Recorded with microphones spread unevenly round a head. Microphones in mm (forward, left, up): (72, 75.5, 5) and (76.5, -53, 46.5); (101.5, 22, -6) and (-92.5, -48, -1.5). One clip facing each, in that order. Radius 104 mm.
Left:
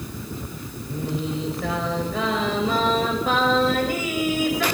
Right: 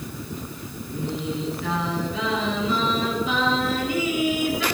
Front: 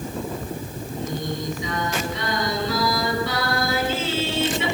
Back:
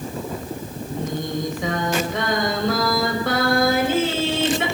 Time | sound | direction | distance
0.9 | singing | 155° left | 5 m